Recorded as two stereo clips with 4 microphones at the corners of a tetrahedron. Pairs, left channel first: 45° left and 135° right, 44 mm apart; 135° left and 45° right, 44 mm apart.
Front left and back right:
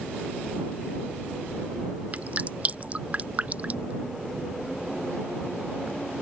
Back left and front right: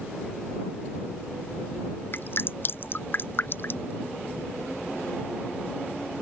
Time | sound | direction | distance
2.1 | dripping | 170° left | ?